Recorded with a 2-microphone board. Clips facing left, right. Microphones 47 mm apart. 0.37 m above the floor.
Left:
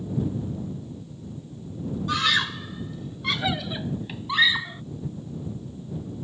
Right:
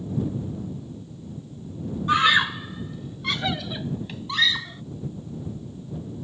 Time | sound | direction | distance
2.1 | a scream | 30° right (ahead or behind) | ?